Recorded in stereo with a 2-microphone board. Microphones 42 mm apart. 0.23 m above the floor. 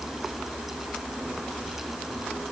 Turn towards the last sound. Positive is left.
No sound to turn to.